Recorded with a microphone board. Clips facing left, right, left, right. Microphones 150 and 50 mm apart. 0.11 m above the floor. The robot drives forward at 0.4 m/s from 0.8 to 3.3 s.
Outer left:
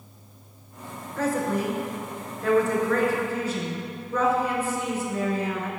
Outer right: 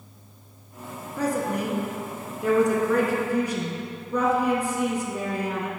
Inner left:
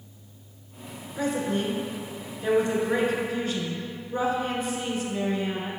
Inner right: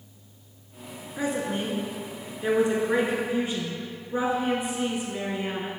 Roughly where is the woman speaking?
Centre.